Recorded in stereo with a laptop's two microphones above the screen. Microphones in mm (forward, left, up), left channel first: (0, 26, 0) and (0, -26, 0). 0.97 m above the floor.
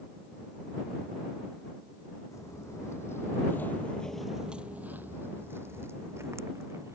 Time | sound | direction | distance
2.3 | footsteps | 70° left (ahead or behind) | ?